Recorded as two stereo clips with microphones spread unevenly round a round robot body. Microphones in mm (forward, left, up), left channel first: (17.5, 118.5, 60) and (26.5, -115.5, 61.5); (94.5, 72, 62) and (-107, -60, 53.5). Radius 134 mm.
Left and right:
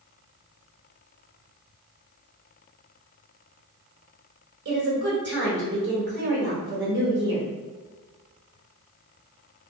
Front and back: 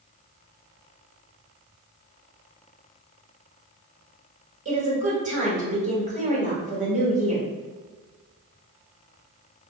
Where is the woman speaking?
100° right, 1.6 m.